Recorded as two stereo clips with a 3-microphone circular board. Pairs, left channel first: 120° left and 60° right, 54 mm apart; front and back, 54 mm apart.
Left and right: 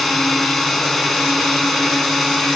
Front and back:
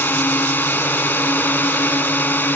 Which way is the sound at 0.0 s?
35° left.